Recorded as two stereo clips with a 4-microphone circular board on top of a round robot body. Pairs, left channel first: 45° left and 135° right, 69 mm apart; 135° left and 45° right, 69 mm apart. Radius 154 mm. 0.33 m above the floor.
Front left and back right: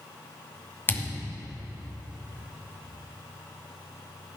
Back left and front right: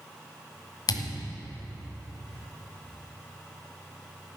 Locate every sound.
0.9 s a thud: 105° left, 1.4 m